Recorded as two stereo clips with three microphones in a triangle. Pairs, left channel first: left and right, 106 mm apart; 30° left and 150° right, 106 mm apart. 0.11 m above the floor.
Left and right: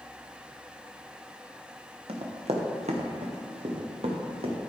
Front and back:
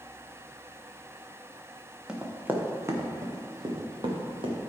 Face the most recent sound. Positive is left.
turn(degrees=-115)